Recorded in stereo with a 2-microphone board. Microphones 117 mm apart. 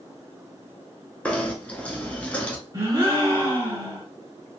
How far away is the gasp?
About 1.5 m.